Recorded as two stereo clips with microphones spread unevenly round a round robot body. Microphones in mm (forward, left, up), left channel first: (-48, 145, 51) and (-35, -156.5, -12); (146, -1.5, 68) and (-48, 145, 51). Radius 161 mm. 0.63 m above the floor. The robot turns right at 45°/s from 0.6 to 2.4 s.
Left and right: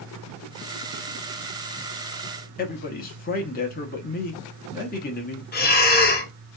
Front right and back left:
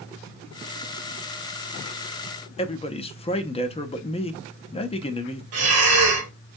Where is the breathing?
155° left, 1.0 m.